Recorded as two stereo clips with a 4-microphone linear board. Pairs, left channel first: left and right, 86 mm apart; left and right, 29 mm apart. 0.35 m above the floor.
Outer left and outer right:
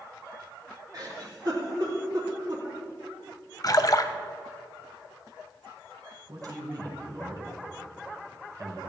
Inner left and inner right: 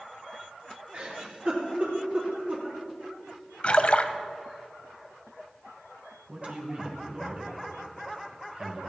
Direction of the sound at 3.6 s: 45° left (ahead or behind).